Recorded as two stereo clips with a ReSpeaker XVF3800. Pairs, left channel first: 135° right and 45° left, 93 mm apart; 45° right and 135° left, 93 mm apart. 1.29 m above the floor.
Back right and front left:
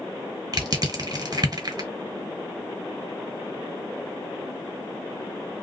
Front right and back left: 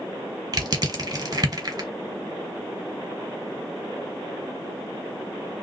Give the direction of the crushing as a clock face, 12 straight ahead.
9 o'clock.